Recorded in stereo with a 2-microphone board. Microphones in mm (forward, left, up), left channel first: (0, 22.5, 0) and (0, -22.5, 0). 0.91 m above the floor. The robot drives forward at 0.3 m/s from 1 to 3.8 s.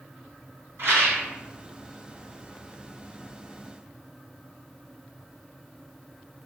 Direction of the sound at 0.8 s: 55° right (ahead or behind).